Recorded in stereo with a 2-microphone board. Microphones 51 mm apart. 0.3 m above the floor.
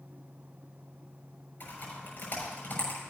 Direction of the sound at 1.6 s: 40° left (ahead or behind).